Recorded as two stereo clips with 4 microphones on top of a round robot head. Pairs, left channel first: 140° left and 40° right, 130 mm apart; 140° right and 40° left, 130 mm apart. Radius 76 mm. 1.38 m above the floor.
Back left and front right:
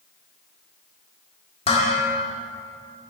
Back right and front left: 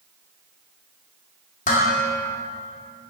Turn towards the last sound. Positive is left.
turn(degrees=-175)